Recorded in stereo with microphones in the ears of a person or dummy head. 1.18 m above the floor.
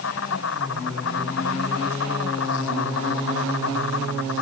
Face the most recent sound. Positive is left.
turn(degrees=85)